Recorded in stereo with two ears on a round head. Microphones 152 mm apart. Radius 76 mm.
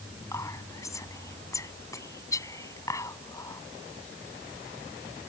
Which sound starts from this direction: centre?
Whispering, at 0.3 s.